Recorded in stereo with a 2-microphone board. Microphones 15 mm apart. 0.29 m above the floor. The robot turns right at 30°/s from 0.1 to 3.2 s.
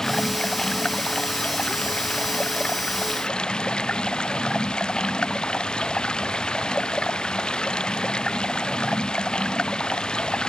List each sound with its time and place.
0.0 s running water: 25° left; by 10.5 s 120° left